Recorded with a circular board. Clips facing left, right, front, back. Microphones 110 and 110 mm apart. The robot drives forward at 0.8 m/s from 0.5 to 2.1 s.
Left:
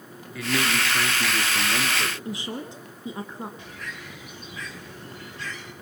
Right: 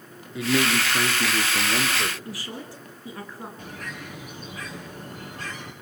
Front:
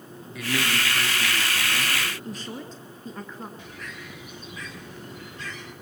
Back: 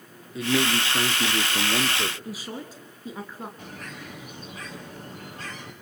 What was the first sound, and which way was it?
A man speaking, 140° right.